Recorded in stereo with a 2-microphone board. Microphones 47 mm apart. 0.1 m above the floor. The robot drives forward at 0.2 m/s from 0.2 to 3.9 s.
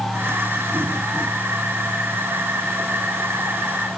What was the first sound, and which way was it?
Only background noise.